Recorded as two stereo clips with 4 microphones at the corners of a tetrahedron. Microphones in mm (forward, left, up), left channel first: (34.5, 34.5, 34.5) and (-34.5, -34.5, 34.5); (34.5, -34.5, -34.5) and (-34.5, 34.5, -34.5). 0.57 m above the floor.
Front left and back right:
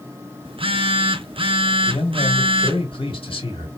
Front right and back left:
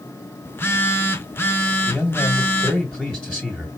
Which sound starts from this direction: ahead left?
A man speaking, at 1.9 s.